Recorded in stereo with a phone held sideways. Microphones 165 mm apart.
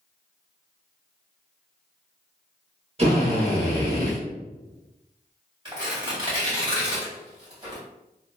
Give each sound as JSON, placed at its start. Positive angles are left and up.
{"t": 3.0, "sound": "a drill", "side_deg": -40, "distance_m": 1.2}
{"t": 5.7, "sound": "tearing paper", "side_deg": -30, "distance_m": 1.8}